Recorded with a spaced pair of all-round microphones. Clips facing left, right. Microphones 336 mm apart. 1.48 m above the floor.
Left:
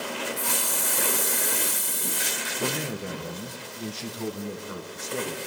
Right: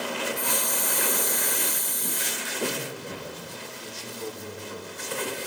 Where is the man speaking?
75° left (ahead or behind), 1.6 m.